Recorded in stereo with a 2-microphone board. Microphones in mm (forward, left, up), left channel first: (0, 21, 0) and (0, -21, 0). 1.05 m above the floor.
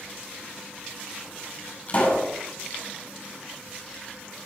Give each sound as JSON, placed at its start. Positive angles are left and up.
{"t": 1.9, "sound": "a pop", "side_deg": 35, "distance_m": 6.5}